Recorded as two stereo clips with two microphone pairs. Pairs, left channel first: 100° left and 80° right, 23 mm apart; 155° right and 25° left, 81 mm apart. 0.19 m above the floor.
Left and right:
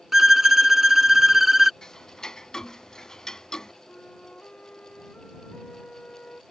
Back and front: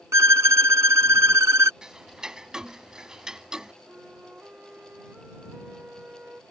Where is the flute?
100° left.